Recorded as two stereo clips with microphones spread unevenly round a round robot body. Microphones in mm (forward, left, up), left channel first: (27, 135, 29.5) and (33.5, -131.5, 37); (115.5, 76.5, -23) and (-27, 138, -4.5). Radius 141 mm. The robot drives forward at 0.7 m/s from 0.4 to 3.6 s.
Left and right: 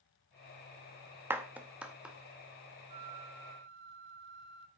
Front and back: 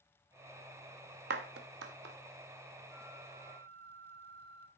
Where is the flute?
110° right, 0.6 m; by 4.7 s 140° right, 0.9 m.